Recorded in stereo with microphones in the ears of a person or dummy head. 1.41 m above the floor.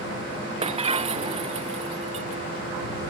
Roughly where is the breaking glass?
Right.